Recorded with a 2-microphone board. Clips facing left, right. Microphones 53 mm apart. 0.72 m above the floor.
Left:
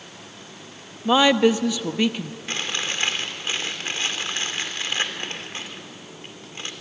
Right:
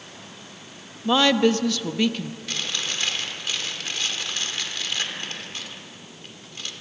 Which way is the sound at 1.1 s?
15° left (ahead or behind).